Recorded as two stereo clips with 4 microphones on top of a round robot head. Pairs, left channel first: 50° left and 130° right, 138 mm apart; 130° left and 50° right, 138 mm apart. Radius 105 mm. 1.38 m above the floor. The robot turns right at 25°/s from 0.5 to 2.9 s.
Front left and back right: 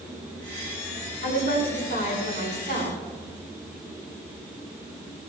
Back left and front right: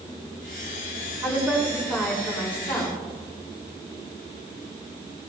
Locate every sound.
1.2 s a woman speaking: 20° left, 6.5 m; by 3.0 s 60° left, 6.5 m